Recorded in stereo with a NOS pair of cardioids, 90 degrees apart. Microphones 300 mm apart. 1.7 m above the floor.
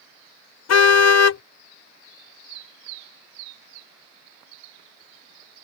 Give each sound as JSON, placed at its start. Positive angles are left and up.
{"t": 0.7, "sound": "a car horn", "azimuth_deg": 65}